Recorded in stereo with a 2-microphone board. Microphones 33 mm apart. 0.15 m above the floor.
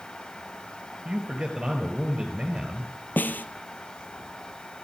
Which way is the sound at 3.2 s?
65° left (ahead or behind).